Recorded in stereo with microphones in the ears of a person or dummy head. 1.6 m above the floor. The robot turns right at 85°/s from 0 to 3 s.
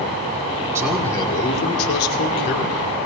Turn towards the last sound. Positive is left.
turn(degrees=175)